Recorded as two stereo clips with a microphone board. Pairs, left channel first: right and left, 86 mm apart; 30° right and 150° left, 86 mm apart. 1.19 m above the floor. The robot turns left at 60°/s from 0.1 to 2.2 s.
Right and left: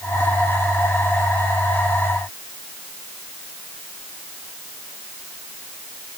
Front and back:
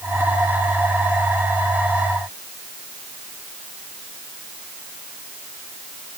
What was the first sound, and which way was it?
Only background noise.